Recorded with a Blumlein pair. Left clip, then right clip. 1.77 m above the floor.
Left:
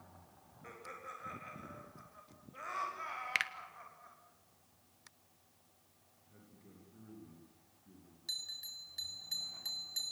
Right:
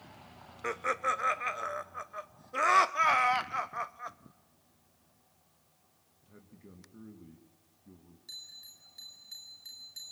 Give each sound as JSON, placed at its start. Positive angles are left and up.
{"t": 0.6, "sound": "laughter", "azimuth_deg": -50, "distance_m": 1.1}
{"t": 3.4, "sound": "a finger snap", "azimuth_deg": 25, "distance_m": 1.1}
{"t": 6.2, "sound": "a man speaking", "azimuth_deg": -20, "distance_m": 3.0}
{"t": 8.3, "sound": "a bell", "azimuth_deg": 70, "distance_m": 4.0}